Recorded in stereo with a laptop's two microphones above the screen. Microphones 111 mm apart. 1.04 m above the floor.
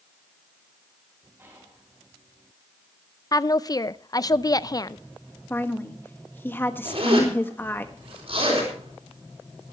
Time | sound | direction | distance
1.4 | whispering | 20° right (ahead or behind) | 9 m
3.3 | a woman speaking | 35° left (ahead or behind) | 0.5 m
5.5 | a woman speaking | 20° left (ahead or behind) | 1.5 m
6.8 | a zipper | 60° right (ahead or behind) | 4.5 m